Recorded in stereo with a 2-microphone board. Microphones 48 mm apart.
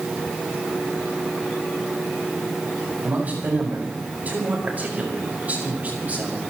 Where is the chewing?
I don't hear chewing.